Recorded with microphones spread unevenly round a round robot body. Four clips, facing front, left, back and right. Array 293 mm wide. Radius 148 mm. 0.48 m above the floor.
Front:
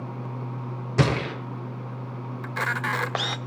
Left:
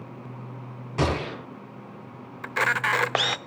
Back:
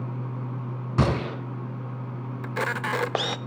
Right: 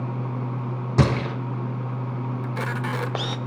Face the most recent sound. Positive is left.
turn(degrees=180)